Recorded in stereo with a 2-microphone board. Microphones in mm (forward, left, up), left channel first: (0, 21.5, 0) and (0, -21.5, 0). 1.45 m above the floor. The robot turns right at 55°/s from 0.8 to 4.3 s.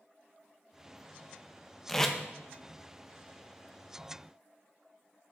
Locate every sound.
1.9 s tape being pulled: 5° left (ahead or behind), 0.6 m; by 2.1 s 10° left (ahead or behind), 0.6 m